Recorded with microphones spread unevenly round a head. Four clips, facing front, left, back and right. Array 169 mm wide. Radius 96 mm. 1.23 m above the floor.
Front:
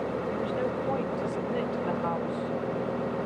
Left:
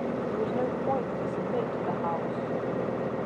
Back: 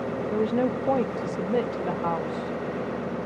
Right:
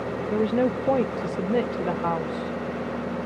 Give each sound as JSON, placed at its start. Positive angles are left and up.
{"t": 0.3, "sound": "a woman speaking", "azimuth_deg": -105}